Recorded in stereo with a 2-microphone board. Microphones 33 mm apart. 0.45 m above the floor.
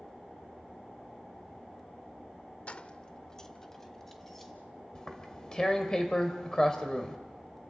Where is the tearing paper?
20° left (ahead or behind), 2 m.